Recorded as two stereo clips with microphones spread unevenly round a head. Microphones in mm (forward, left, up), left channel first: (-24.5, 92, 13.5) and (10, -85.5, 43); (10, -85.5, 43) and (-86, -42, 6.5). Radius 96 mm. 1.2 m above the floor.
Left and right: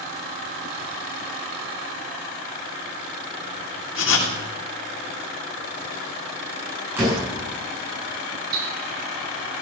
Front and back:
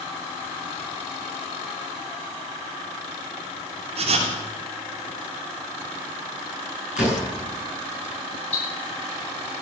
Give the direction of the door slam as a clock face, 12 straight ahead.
12 o'clock.